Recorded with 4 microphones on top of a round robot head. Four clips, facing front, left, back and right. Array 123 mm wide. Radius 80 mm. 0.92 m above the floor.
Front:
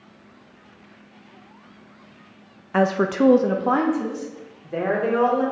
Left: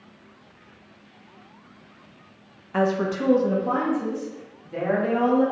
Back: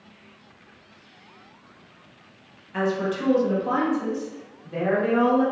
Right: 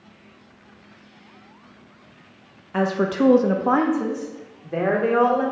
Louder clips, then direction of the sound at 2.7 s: Right 2 dB, front 5 dB; 5° left.